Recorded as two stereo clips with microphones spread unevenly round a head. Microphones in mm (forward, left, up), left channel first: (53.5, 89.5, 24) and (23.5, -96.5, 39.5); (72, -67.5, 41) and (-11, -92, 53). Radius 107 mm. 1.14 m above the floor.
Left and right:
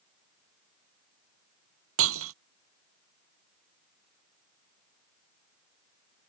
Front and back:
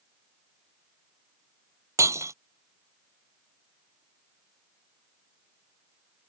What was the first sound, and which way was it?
Breaking glass, 110° right.